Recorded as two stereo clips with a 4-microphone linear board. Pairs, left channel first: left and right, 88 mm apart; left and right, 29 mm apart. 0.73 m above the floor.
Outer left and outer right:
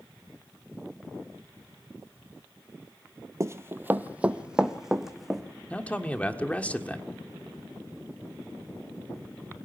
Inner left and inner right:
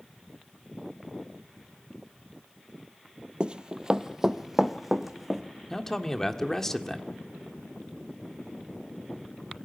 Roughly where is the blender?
No blender in this recording.